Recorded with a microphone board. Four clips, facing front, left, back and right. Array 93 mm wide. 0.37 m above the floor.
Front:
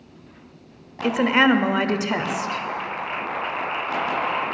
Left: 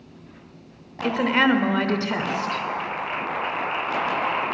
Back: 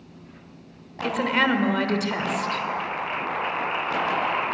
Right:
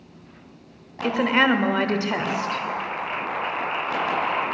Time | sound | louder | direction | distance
1.0 | a woman speaking | even, front 5 dB | 20° right | 0.9 m